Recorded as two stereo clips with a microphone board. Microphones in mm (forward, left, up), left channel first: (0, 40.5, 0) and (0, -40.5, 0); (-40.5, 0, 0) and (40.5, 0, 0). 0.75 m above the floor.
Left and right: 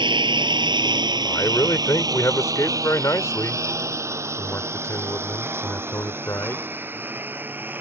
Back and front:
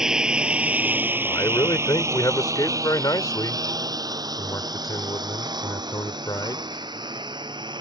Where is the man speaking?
140° left.